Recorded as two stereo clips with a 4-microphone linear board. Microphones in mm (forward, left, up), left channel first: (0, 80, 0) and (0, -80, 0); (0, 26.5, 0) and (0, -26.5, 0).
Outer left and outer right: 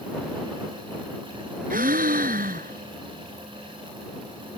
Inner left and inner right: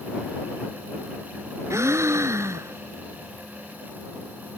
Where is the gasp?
65° right (ahead or behind).